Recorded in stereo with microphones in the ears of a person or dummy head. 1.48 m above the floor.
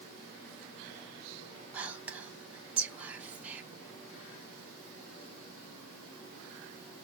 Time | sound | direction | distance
1.7 | whispering | 15° right (ahead or behind) | 0.7 m